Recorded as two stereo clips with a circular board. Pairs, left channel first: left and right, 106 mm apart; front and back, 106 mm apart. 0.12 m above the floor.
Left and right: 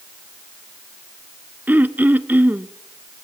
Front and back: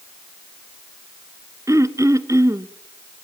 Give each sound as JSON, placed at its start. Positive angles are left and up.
{"t": 1.7, "sound": "throat clearing", "azimuth_deg": -150, "distance_m": 0.6}